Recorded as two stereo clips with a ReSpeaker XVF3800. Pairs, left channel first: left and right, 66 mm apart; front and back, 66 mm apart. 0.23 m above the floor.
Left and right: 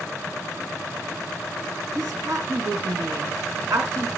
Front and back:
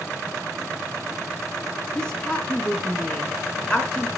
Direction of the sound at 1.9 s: 75° right.